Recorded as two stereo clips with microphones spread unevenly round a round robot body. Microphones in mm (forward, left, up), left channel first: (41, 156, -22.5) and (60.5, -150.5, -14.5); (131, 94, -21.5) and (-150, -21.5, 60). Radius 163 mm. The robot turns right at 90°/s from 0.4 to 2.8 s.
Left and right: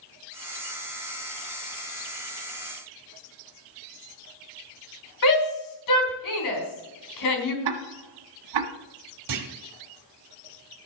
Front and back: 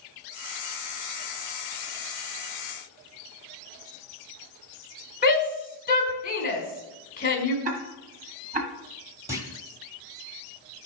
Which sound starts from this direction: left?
A shout, at 5.2 s.